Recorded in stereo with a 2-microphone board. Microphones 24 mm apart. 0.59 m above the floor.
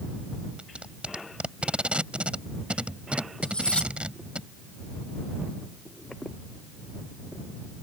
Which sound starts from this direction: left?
Cutlery clinking, at 3.4 s.